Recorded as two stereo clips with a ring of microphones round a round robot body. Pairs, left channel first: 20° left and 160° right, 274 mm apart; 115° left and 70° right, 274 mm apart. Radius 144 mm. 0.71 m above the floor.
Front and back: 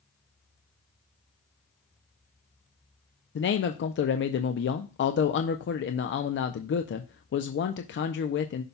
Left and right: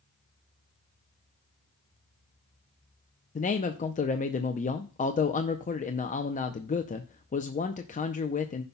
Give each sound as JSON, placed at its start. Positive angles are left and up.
{"t": 3.4, "sound": "a man speaking", "azimuth_deg": 55, "distance_m": 0.6}